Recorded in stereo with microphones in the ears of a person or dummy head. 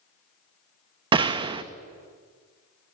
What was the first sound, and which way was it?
A gunshot, 25° right (ahead or behind).